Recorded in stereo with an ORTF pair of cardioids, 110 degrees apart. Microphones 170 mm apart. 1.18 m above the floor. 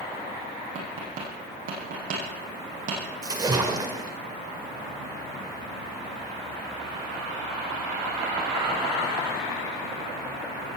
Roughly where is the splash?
Ahead.